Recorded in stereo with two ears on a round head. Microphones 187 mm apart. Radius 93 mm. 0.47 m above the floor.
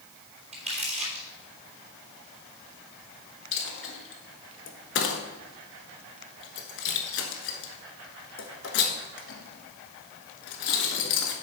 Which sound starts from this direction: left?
A dropped coin, at 3.5 s.